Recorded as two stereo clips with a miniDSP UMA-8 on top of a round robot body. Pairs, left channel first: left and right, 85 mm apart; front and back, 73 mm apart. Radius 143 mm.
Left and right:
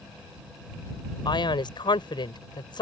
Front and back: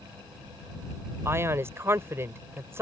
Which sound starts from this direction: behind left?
A man speaking, at 1.2 s.